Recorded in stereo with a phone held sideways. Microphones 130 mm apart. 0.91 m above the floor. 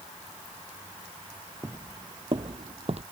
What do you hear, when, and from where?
1.6 s footsteps: 25° right (ahead or behind); by 3.0 s 55° right (ahead or behind)